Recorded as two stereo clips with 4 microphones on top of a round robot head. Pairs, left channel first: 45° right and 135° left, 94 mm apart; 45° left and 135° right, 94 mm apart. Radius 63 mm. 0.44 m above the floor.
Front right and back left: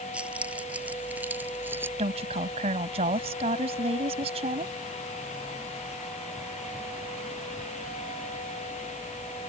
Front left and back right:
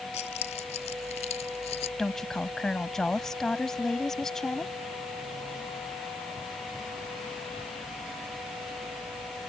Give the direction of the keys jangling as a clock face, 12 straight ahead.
10 o'clock.